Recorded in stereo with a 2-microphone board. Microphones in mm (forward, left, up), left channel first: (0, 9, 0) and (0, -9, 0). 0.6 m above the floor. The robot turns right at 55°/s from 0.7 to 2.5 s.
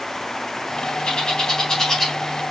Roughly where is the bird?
Left.